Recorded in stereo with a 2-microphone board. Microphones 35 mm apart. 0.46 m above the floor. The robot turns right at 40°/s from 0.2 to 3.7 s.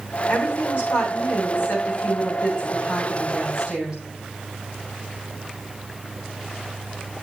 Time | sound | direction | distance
0.3 | a woman speaking | 65° left | 8 m